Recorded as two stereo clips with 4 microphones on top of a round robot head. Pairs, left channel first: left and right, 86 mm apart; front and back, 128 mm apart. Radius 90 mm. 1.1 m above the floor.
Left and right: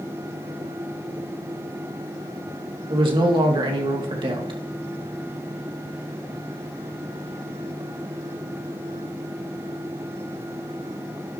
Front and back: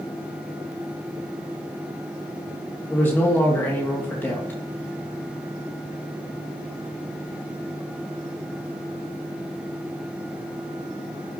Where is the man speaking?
75° right, 2.5 m.